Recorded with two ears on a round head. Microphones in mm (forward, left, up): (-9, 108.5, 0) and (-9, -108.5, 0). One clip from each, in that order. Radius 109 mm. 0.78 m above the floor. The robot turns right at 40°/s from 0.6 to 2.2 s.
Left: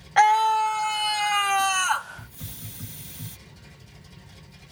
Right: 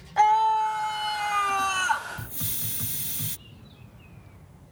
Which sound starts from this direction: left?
A scream, at 0.2 s.